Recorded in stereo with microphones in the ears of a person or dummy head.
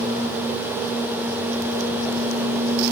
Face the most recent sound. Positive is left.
No sound to turn to.